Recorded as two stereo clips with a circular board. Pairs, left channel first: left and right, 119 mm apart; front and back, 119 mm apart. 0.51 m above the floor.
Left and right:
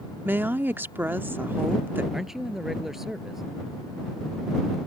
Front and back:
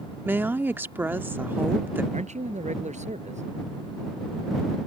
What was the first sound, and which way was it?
A woman speaking, 135° right.